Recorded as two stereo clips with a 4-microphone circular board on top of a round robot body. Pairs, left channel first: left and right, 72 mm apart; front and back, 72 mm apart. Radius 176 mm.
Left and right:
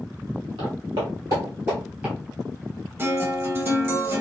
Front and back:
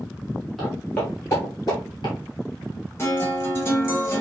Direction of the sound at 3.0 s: 45° right.